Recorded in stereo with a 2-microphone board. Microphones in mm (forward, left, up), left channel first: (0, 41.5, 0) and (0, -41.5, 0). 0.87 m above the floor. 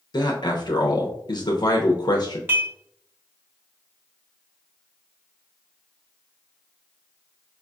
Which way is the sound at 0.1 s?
55° left (ahead or behind).